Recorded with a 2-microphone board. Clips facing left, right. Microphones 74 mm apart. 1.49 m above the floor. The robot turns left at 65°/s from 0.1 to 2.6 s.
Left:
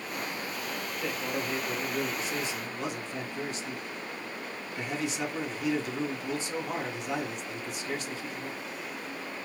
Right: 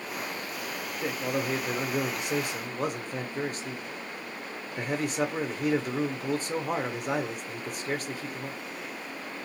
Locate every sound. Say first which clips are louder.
1.0 s a man speaking: right 4 dB; 25° right, 0.8 m; by 8.6 s 130° right, 0.8 m